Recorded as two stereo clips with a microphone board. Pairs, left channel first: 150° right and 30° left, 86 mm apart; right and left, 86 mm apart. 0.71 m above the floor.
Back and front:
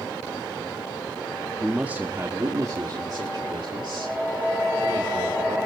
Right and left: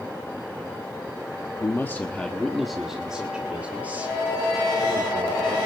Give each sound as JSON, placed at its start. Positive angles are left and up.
{"t": 1.6, "sound": "a man speaking", "azimuth_deg": -50, "distance_m": 1.1}